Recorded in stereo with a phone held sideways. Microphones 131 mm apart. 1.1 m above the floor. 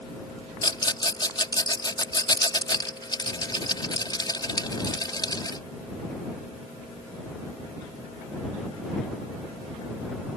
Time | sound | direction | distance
0.6 | a rattle | 35° left (ahead or behind) | ?